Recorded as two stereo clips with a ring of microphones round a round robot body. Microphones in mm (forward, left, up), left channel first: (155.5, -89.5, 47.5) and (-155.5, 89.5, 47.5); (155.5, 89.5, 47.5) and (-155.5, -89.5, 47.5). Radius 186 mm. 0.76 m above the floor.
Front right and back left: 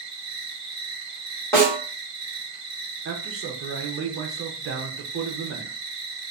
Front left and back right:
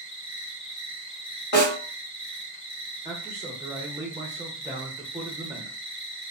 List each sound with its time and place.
0.0 s an insect: 80° left, 1.2 m
1.5 s a snare drum: 50° left, 1.5 m
3.0 s a man speaking: 135° left, 0.5 m